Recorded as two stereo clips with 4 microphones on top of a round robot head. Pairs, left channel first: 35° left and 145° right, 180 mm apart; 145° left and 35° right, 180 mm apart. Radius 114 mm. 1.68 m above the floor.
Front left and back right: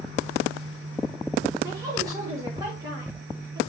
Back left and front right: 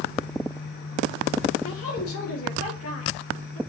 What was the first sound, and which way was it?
A woman speaking, 145° left.